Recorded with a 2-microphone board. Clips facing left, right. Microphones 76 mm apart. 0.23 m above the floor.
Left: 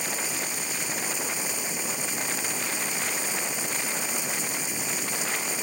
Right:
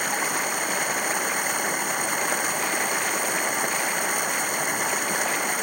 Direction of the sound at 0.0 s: 60° right (ahead or behind).